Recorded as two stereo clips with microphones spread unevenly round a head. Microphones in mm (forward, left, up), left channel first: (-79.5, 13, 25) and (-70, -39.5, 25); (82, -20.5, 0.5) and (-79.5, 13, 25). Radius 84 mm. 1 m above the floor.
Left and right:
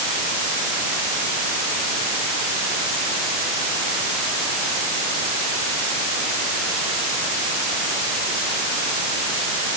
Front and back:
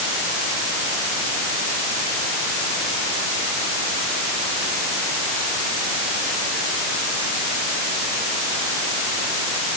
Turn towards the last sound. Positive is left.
No sound to turn to.